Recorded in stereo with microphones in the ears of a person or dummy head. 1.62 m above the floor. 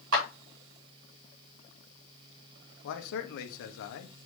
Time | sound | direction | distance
0.1 | a clap | 75° right (ahead or behind) | 4.5 m
2.8 | a man speaking | 65° left (ahead or behind) | 1.0 m